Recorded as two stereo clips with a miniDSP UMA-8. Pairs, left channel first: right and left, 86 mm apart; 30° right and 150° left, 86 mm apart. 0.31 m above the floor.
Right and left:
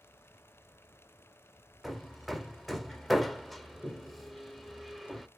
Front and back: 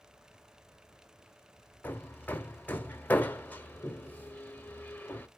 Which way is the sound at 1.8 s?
5° left.